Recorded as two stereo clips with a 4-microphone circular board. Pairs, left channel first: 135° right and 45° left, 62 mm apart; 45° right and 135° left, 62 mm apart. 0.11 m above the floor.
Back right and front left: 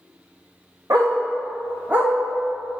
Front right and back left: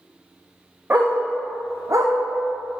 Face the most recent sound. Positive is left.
turn(degrees=110)